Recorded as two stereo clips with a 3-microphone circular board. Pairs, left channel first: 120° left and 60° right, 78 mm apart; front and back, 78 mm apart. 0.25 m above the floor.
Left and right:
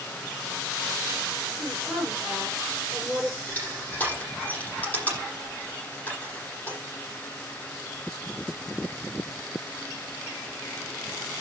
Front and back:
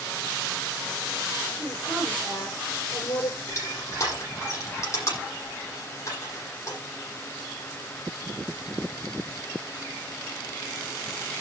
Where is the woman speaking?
30° left, 9.5 m.